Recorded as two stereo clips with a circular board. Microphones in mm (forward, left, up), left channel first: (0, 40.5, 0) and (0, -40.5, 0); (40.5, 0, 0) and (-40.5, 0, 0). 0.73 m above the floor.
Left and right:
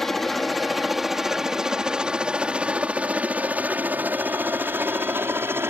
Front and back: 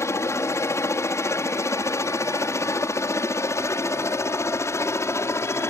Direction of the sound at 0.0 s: 5° left.